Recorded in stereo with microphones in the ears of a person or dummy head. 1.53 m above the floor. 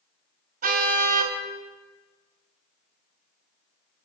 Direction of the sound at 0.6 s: 50° right (ahead or behind).